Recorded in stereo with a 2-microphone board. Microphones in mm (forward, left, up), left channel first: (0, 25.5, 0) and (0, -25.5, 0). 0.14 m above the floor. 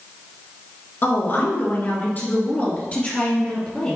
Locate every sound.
1.0 s a woman speaking: 45° left (ahead or behind), 2 m; by 4.0 s 20° left (ahead or behind), 3 m